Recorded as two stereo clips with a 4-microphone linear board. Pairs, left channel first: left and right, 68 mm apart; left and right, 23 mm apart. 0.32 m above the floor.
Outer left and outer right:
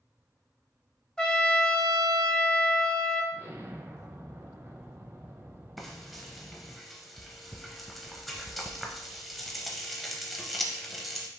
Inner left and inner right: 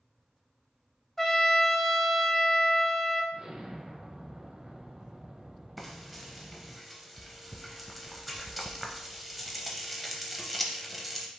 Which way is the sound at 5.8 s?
Centre (ahead or behind).